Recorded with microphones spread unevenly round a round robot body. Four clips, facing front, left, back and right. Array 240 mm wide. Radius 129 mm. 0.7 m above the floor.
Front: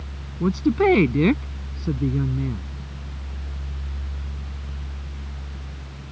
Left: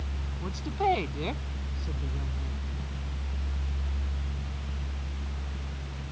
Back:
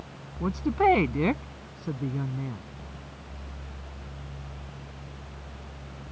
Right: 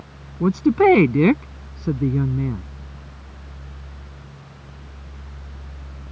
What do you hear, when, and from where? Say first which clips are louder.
0.4 s a woman speaking: right 14 dB, front 4 dB; 75° right